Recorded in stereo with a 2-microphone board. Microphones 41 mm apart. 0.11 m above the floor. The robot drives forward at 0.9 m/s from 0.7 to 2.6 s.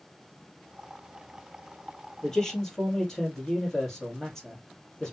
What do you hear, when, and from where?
2.2 s a man speaking: 15° left (ahead or behind), 2.5 m; by 5.1 s 10° left (ahead or behind), 3 m